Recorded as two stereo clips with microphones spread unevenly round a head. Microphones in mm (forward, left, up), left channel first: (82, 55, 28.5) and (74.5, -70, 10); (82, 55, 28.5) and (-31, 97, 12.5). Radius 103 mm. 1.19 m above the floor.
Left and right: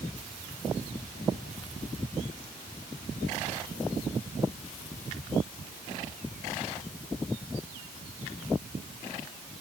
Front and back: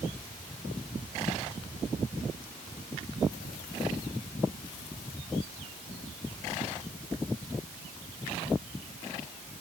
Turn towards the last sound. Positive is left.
No sound to turn to.